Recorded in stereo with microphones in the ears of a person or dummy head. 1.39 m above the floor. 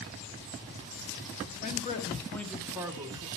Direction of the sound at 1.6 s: 35° left (ahead or behind).